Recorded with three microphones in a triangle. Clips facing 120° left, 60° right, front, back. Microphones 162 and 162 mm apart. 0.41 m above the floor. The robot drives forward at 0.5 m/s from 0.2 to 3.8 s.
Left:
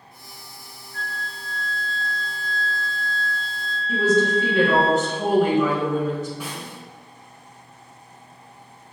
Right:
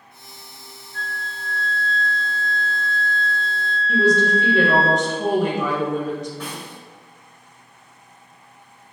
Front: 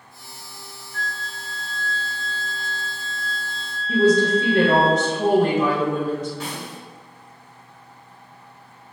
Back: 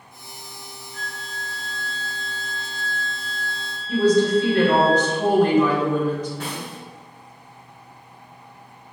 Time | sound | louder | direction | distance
0.9 | a flute | right 1 dB, front 3 dB | 120° left | 1.2 m
3.9 | a woman speaking | right 1 dB, even | 35° left | 1.3 m
6.4 | a snare drum | right 1 dB, back 1 dB | 165° right | 1.3 m